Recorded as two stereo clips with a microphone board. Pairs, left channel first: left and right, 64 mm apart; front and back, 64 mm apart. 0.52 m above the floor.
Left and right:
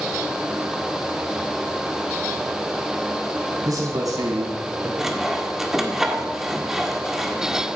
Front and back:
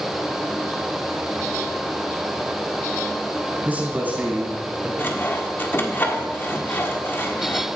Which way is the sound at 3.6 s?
115° right.